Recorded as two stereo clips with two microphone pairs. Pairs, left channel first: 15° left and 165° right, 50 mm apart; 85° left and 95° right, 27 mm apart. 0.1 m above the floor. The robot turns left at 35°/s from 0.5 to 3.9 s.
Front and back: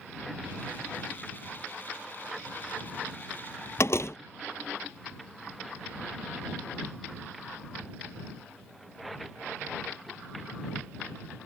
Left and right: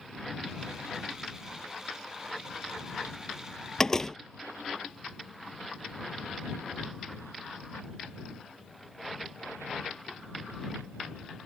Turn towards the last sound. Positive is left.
turn(degrees=15)